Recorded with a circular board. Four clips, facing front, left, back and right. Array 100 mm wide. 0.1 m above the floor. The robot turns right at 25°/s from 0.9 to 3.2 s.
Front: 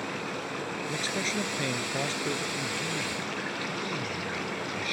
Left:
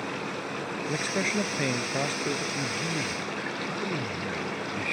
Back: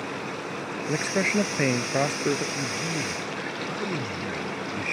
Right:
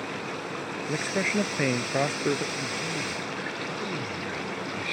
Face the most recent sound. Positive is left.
turn(degrees=155)